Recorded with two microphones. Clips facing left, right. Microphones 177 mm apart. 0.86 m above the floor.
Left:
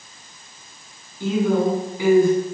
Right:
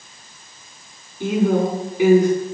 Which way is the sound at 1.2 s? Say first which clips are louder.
Right 1 dB; 20° right (ahead or behind).